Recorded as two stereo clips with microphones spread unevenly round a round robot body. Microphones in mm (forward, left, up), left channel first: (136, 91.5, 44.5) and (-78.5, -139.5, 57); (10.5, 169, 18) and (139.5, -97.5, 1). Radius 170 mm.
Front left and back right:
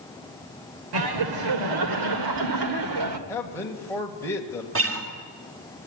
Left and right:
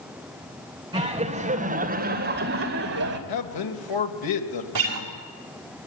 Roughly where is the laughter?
Behind right.